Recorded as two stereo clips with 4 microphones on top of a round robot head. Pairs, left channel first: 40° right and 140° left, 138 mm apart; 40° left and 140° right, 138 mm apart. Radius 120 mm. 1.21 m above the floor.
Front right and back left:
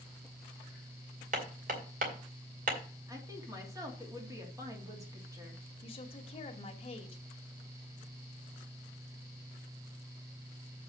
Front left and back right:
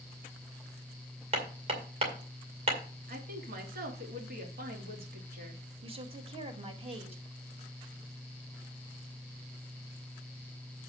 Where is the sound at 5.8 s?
90° right, 1.9 m.